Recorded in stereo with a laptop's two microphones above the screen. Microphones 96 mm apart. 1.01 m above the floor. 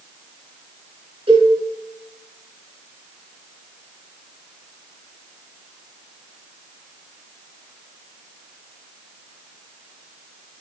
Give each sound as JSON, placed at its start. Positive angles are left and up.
{"t": 1.3, "sound": "a cowbell", "side_deg": -65, "distance_m": 3.5}